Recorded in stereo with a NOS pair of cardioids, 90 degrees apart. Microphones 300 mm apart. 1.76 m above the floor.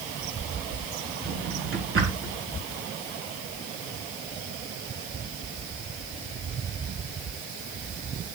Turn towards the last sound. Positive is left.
turn(degrees=-45)